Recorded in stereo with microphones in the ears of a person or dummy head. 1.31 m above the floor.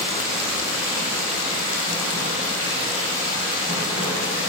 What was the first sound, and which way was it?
Running water, 40° right (ahead or behind).